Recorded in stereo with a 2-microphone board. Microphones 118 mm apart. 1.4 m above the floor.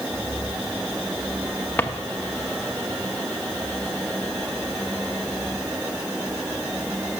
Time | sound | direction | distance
1.8 | a drawer | 15° left (ahead or behind) | 1.0 m